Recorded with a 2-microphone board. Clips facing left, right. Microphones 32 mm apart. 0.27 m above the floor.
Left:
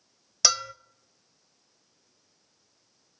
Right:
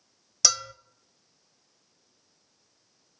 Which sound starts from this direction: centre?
A bell, at 0.4 s.